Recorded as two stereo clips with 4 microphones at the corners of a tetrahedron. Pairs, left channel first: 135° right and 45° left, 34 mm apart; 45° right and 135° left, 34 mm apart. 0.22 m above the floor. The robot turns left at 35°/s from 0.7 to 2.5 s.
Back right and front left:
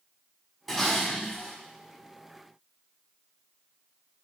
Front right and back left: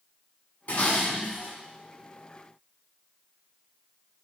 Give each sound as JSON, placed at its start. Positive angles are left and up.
{"t": 0.7, "sound": "dishes clattering", "azimuth_deg": -55, "distance_m": 1.2}